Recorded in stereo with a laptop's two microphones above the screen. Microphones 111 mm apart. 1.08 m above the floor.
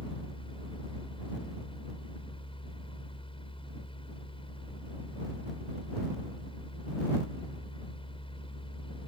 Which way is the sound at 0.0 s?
55° left (ahead or behind).